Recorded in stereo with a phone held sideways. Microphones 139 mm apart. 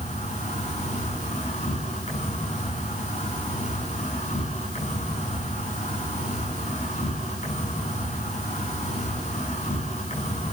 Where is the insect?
55° left (ahead or behind), 9.5 m.